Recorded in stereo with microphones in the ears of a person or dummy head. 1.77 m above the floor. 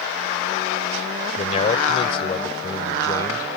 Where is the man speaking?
40° left (ahead or behind); by 3.5 s 20° left (ahead or behind).